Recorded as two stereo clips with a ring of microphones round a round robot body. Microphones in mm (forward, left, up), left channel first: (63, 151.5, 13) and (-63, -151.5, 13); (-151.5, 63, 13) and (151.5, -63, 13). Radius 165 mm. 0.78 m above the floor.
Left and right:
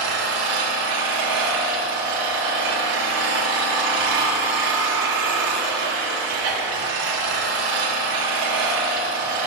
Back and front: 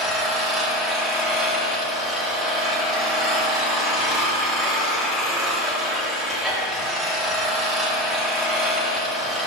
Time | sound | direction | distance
0.0 | an engine running | 110° right | 1.5 m